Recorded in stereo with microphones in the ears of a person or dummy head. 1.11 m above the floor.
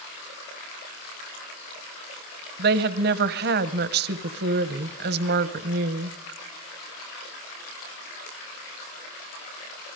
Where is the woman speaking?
50° right (ahead or behind), 0.9 m.